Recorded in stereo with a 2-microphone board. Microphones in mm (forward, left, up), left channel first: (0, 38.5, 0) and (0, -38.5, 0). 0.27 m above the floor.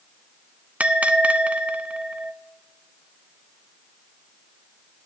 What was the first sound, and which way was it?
A bell, 15° right (ahead or behind).